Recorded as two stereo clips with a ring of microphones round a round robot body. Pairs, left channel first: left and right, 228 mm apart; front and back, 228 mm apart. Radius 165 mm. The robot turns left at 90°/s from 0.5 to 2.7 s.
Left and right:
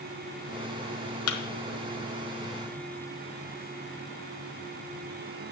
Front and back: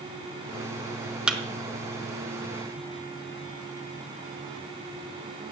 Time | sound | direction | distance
1.3 | a thud | 95° left | 1.4 m